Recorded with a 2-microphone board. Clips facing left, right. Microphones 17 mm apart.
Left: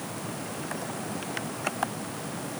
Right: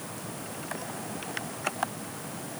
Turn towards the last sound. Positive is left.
No sound to turn to.